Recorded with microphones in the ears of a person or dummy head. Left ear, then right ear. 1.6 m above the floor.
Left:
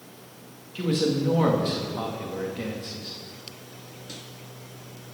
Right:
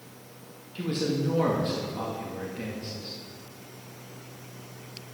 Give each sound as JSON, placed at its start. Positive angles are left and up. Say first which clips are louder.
{"t": 0.8, "sound": "a man speaking", "louder": "left 4 dB", "side_deg": 15, "distance_m": 2.0}